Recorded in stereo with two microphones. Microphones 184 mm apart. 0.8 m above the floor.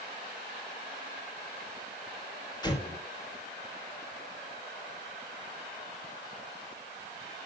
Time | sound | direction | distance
2.6 | an explosion | 25° left (ahead or behind) | 3 m